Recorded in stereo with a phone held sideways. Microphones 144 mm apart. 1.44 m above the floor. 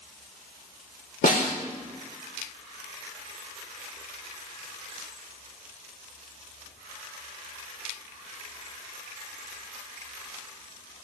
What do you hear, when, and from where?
1.2 s a snare drum: 85° left, 4 m